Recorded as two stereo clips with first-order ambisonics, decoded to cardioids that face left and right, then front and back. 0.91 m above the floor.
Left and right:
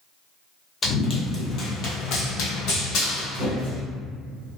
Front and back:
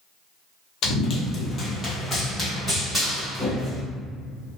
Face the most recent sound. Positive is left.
turn(degrees=105)